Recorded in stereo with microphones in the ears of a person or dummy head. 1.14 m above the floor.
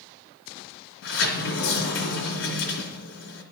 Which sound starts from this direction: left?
A sliding door, at 1.0 s.